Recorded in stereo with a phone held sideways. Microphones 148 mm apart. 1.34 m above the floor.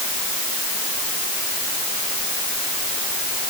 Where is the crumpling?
No crumpling in this recording.